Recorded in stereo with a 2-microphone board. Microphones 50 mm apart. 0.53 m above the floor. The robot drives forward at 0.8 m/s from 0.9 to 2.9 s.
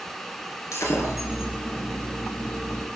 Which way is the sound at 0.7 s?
75° left (ahead or behind).